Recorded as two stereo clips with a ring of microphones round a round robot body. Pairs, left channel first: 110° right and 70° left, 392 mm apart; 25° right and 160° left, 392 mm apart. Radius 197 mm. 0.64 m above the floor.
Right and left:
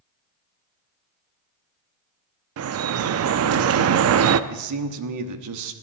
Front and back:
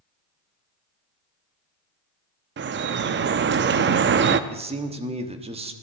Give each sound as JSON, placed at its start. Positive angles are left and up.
{"t": 2.6, "sound": "dripping", "azimuth_deg": 105, "distance_m": 0.5}
{"t": 4.5, "sound": "a man speaking", "azimuth_deg": 90, "distance_m": 1.1}